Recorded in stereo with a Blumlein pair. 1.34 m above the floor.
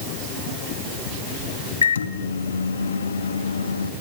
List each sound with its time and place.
1.8 s a microwave: 70° left, 1.6 m